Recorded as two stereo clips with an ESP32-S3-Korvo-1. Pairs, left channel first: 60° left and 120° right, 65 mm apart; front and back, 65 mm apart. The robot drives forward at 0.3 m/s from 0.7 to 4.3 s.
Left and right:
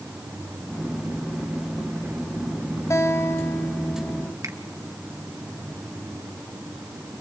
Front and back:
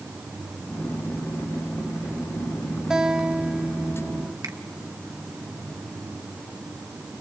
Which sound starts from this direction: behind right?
A finger snap, at 4.4 s.